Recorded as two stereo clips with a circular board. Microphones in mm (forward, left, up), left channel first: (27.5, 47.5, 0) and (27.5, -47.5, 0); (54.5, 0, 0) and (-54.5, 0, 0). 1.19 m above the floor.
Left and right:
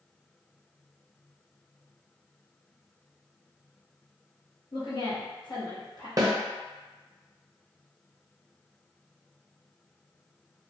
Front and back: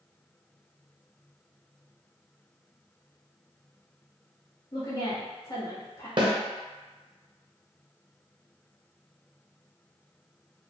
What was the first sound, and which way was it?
A woman speaking, 50° left.